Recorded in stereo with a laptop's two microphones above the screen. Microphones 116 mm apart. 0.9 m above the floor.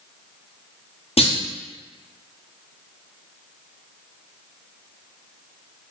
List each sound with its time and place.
1.2 s a clunk: 65° left (ahead or behind), 0.5 m